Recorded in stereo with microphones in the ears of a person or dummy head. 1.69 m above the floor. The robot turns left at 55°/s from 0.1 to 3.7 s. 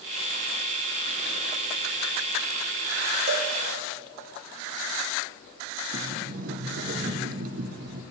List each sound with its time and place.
3.3 s a cowbell: 50° right (ahead or behind), 1.5 m; by 3.5 s 45° right (ahead or behind), 1.5 m
5.9 s a sliding door: 55° right (ahead or behind), 0.6 m